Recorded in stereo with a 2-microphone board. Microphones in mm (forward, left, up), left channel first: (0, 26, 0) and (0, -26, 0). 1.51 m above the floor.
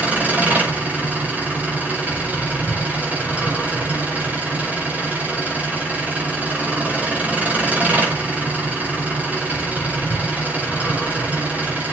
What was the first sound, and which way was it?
An engine running, 30° right (ahead or behind).